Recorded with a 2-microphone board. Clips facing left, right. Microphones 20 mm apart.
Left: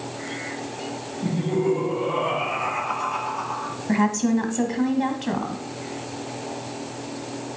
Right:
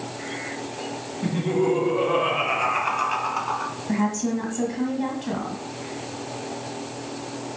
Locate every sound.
1.2 s laughter: 55° right (ahead or behind), 3.5 m; by 3.7 s 65° right (ahead or behind), 3 m
3.9 s a woman speaking: 25° left (ahead or behind), 1.6 m